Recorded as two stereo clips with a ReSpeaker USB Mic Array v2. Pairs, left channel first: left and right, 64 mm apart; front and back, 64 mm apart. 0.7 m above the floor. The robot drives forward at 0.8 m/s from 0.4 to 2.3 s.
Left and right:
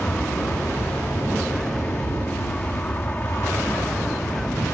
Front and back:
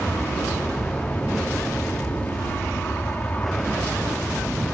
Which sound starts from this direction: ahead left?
An aircraft, at 0.0 s.